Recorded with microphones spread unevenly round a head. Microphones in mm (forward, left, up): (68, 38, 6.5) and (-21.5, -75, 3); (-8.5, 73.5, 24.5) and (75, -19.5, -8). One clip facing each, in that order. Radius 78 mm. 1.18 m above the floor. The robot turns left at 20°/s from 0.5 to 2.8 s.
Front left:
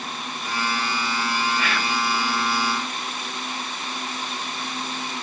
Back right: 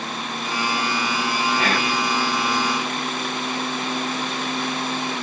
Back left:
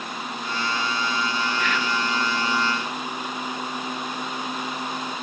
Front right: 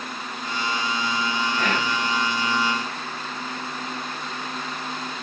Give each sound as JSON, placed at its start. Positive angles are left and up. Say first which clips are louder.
{"t": 1.6, "sound": "whispering", "louder": "back right 4 dB, front right 1 dB", "azimuth_deg": -85, "distance_m": 1.1}